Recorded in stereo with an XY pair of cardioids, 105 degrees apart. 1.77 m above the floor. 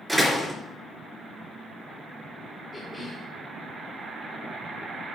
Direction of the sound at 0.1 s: 10° right.